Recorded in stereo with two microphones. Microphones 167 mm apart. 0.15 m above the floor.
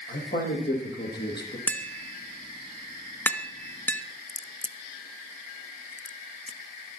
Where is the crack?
45° left (ahead or behind), 0.7 m.